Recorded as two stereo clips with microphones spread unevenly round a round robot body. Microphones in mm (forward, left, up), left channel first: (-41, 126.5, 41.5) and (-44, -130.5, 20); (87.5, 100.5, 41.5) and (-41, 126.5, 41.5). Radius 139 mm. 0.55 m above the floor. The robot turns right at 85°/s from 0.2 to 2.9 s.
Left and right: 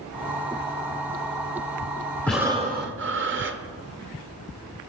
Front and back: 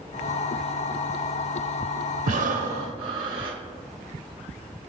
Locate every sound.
2.3 s breathing: 175° left, 0.9 m; by 3.6 s 130° right, 0.9 m